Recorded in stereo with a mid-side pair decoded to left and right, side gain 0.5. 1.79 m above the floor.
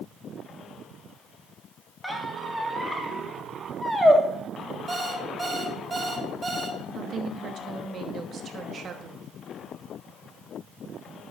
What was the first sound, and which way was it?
A squeak, straight ahead.